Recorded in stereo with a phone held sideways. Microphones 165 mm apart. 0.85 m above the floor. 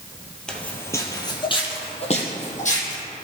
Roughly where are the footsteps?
Centre.